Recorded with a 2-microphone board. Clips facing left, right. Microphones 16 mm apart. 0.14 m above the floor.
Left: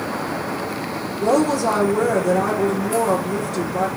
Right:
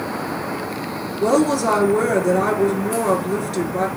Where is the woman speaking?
35° right (ahead or behind), 2.5 m.